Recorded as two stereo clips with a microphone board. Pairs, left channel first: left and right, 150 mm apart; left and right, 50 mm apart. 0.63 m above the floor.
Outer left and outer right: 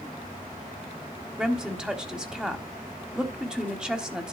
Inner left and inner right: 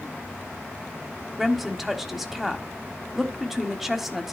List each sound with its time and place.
1.4 s a woman speaking: 5° right (ahead or behind), 1.2 m